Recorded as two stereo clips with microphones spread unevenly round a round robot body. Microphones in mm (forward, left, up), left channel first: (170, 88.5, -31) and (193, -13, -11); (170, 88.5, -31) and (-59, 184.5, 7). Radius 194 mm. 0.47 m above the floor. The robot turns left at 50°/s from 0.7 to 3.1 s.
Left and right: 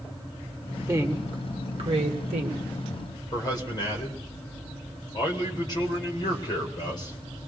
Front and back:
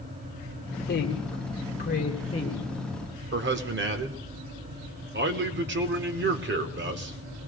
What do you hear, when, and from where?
0.9 s a woman speaking: 10° right, 1.4 m; by 2.6 s 100° right, 1.4 m
3.3 s a man speaking: 120° left, 1.1 m